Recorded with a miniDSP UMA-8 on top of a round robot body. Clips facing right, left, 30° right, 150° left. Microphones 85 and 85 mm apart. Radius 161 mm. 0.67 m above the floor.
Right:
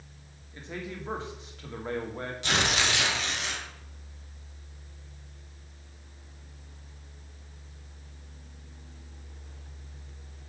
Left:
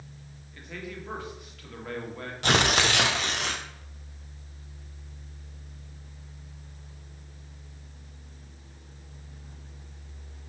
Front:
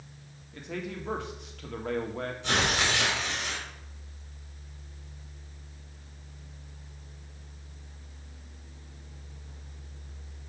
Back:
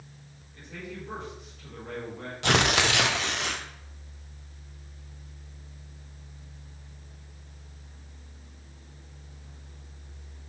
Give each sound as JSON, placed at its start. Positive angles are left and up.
{"t": 0.5, "sound": "a man speaking", "azimuth_deg": -25, "distance_m": 1.7}
{"t": 2.4, "sound": "tearing paper", "azimuth_deg": 130, "distance_m": 0.6}